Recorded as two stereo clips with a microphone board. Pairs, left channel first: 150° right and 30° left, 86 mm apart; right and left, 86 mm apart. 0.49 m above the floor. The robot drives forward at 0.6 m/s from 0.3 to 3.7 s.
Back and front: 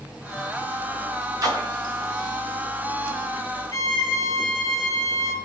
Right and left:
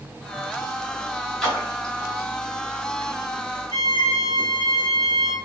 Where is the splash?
10° right, 1.9 m.